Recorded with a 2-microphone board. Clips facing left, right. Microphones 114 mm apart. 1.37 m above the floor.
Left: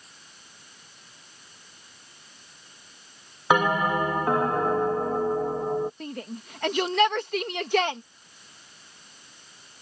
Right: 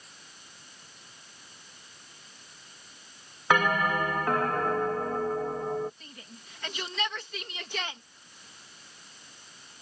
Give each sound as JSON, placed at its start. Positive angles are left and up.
{"t": 3.5, "sound": "a bell", "side_deg": 20}
{"t": 6.0, "sound": "a shout", "side_deg": 65}